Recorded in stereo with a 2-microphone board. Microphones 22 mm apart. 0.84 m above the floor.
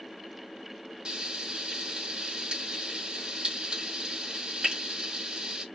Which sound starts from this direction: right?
Frying, at 1.1 s.